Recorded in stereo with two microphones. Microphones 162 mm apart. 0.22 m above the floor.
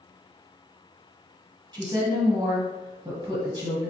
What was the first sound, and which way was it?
A woman speaking, 25° right (ahead or behind).